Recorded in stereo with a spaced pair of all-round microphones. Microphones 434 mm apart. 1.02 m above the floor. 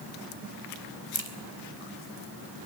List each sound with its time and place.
1.1 s a crack: 85° right, 2.5 m